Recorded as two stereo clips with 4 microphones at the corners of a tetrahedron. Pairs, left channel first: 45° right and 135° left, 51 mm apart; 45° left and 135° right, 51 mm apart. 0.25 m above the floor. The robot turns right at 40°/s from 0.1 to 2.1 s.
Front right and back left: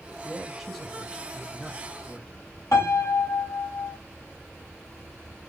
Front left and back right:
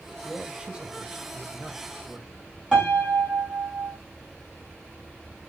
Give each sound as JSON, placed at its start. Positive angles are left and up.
{"t": 0.2, "sound": "a man speaking", "azimuth_deg": -160, "distance_m": 1.4}
{"t": 2.7, "sound": "a piano", "azimuth_deg": -60, "distance_m": 5.0}